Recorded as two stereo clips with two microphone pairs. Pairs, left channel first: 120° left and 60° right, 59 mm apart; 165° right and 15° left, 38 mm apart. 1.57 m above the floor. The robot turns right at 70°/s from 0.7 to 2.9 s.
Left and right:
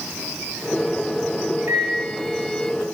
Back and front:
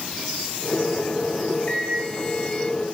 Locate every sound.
1.7 s a microwave: 100° right, 1.0 m; by 2.0 s 75° right, 1.0 m